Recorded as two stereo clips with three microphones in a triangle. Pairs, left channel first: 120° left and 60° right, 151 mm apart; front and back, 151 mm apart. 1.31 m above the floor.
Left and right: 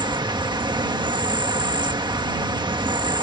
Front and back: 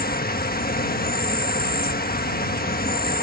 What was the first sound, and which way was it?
An insect, straight ahead.